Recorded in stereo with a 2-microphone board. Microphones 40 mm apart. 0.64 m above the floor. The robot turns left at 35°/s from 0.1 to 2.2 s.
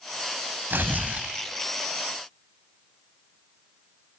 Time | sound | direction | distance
0.7 | tearing paper | 55° right (ahead or behind) | 1.5 m